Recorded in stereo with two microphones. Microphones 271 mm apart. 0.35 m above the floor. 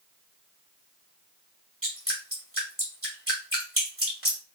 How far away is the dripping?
About 1.8 m.